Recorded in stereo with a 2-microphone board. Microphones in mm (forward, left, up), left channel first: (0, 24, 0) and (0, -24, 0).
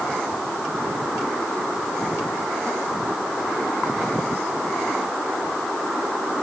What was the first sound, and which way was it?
Only background noise.